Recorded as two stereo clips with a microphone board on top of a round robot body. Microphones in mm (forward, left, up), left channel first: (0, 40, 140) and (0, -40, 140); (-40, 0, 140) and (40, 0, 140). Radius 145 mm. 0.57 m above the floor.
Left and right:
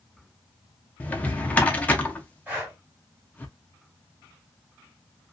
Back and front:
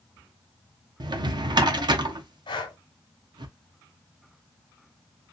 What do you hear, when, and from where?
1.0 s a drawer: 20° left, 0.7 m
2.5 s breathing: 165° right, 0.7 m